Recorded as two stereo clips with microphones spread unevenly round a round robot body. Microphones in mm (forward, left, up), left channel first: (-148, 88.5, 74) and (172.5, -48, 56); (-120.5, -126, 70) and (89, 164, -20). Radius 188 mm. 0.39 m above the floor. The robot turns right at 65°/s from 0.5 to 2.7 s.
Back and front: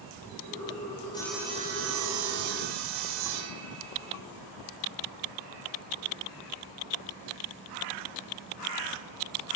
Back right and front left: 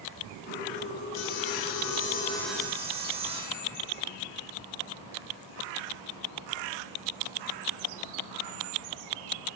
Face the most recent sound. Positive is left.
turn(degrees=-25)